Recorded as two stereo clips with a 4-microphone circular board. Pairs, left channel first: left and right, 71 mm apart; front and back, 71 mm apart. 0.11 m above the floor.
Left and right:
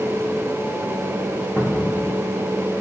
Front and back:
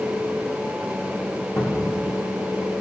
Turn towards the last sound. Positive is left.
turn(degrees=35)